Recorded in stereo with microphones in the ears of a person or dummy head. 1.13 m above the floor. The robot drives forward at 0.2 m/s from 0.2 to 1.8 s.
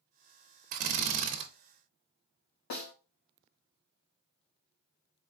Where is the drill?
50° right (ahead or behind), 0.5 m; by 1.5 s 40° right (ahead or behind), 0.6 m.